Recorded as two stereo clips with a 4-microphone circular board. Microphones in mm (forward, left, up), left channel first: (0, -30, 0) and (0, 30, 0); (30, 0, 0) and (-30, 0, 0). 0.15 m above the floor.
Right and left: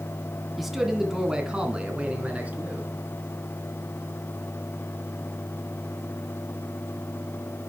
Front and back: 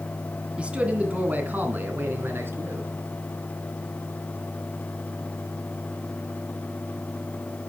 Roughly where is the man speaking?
Behind.